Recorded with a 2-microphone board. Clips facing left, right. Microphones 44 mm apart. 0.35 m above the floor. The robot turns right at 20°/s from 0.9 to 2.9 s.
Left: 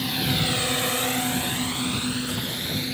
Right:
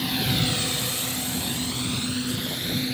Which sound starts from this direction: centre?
A drone, at 0.0 s.